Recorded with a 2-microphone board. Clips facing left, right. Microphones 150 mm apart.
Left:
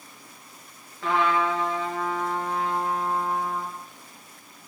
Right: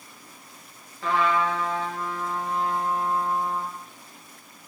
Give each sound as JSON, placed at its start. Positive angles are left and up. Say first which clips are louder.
{"t": 1.0, "sound": "a trumpet", "louder": "even", "side_deg": 0, "distance_m": 2.0}